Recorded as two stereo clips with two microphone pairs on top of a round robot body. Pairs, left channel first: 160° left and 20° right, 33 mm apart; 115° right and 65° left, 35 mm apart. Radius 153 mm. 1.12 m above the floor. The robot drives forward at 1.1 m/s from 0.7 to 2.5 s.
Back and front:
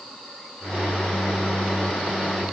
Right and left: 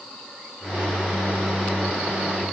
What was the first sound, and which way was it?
Only background noise.